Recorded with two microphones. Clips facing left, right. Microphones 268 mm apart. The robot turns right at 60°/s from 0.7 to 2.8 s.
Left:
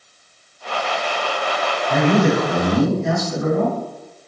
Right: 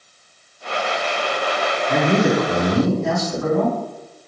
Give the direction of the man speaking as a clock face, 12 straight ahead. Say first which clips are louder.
Left 1 dB; 2 o'clock.